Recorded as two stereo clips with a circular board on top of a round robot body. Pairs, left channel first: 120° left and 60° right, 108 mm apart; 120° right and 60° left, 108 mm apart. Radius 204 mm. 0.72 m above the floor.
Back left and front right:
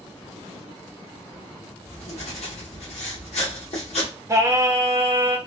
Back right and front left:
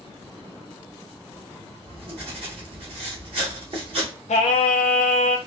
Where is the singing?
125° right, 0.5 m.